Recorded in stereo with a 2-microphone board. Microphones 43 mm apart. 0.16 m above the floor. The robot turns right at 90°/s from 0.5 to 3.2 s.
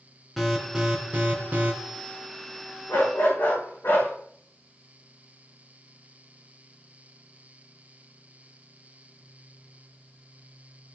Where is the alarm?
Straight behind, 3 m; by 1.7 s 70° right, 3 m.